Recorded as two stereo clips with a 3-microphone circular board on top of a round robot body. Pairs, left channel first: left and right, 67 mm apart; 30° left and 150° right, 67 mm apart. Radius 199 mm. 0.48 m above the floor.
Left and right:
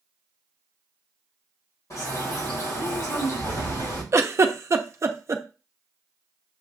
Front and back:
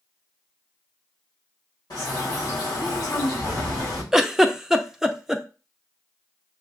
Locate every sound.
1.9 s a bird: 55° left, 3.5 m
4.1 s a giggle: 70° right, 0.7 m